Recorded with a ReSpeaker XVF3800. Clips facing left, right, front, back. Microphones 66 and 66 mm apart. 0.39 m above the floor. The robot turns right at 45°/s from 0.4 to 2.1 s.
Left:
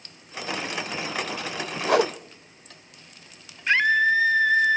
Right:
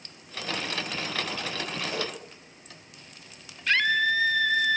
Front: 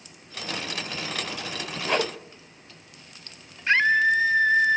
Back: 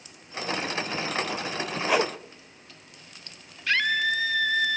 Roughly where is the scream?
Ahead left.